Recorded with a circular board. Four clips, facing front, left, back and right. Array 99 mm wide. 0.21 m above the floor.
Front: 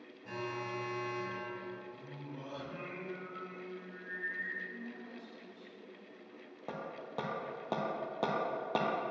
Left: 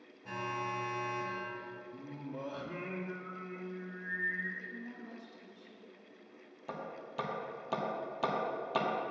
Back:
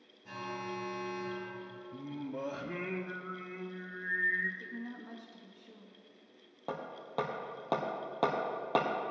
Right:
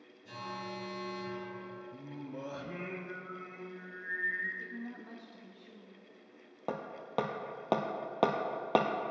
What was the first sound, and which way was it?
An alarm, 75° left.